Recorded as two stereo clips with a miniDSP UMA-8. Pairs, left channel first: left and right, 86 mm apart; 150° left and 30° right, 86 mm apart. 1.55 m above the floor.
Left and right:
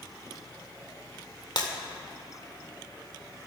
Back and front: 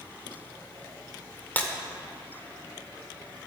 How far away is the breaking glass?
About 1.9 m.